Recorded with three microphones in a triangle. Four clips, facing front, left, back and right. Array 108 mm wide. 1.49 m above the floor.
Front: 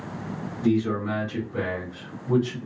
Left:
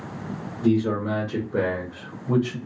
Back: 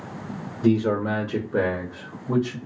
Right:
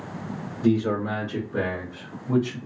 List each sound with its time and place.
0.6 s a man speaking: 160° right, 0.8 m; by 2.6 s 115° left, 0.9 m